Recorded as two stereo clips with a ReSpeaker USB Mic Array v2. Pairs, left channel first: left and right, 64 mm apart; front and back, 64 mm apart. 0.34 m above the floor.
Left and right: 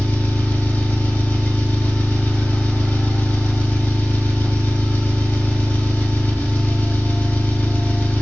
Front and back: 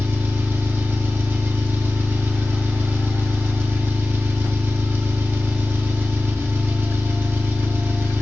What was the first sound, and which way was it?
An engine running, 135° left.